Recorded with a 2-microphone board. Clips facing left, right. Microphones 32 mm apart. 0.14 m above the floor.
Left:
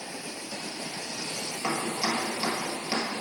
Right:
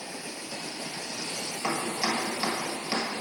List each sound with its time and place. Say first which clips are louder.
1.6 s chopping: even; 30° right (ahead or behind), 1.6 m